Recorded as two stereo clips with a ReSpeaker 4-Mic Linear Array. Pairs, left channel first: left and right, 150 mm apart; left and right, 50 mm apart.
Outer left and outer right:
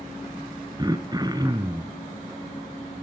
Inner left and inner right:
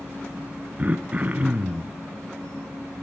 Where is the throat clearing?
25° right (ahead or behind), 1.3 m.